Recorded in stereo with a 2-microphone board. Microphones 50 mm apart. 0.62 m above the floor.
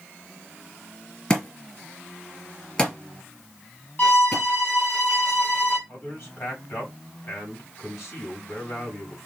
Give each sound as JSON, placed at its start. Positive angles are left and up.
{"t": 1.3, "sound": "a thud", "side_deg": 15, "distance_m": 2.0}
{"t": 4.0, "sound": "a violin", "side_deg": 45, "distance_m": 3.0}
{"t": 5.9, "sound": "a man speaking", "side_deg": 50, "distance_m": 3.0}